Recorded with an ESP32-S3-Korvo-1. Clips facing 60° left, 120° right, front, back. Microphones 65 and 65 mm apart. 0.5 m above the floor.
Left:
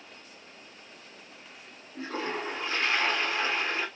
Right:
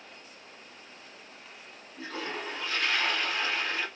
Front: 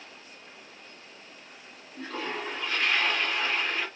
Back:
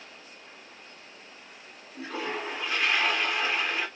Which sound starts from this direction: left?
A toilet flushing, at 1.9 s.